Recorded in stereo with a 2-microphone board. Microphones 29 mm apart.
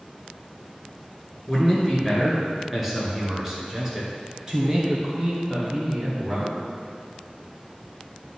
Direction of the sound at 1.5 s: Centre (ahead or behind).